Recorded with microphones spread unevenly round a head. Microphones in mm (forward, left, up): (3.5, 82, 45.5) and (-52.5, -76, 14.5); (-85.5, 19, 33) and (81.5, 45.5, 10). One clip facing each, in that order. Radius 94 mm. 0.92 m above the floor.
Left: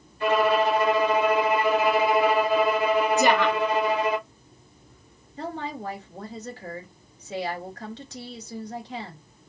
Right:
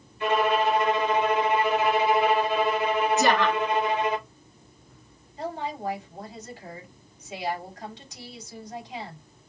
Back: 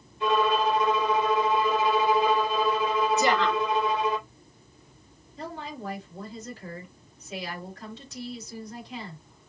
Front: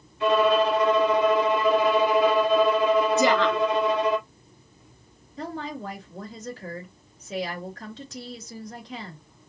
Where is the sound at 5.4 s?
25° left, 3.5 m.